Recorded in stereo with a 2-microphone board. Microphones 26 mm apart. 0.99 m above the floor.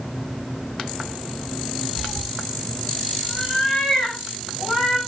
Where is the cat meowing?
10° left (ahead or behind), 2.5 m.